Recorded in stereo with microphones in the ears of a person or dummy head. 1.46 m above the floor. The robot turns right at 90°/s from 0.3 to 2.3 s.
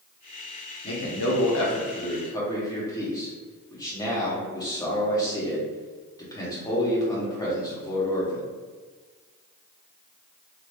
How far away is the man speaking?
About 1.1 m.